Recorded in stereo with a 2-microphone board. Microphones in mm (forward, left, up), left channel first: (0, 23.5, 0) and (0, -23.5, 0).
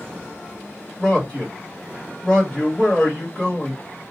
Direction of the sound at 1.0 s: 15° left (ahead or behind).